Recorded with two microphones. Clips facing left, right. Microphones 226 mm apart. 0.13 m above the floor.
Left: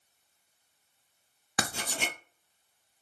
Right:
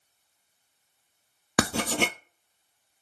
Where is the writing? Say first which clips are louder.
Right 11 dB; 80° right, 0.6 m.